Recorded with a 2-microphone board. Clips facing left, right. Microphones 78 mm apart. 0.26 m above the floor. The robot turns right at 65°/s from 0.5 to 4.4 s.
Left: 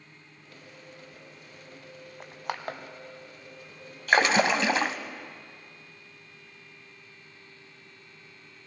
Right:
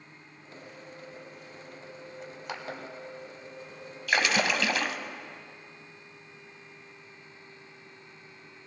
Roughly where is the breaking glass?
No breaking glass in this recording.